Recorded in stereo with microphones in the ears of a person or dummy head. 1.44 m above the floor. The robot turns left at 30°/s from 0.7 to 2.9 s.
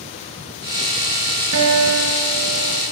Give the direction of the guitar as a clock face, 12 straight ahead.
3 o'clock.